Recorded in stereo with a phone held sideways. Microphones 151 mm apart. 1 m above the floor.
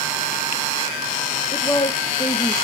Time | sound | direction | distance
1.5 | a woman speaking | 30° left (ahead or behind) | 1.0 m